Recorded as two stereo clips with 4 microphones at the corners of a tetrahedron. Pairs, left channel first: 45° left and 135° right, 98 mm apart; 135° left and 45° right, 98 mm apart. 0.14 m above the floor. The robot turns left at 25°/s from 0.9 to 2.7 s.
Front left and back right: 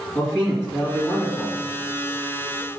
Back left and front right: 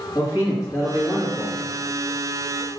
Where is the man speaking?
95° left, 2 m; by 1.6 s 80° left, 2 m.